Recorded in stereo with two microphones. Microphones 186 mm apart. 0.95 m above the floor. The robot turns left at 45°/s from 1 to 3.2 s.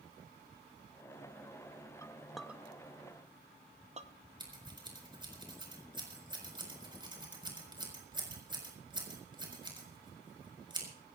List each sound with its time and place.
2.0 s a clink: 15° left (ahead or behind), 0.8 m; by 4.1 s 35° right (ahead or behind), 0.8 m
4.4 s scissors: 25° right (ahead or behind), 5 m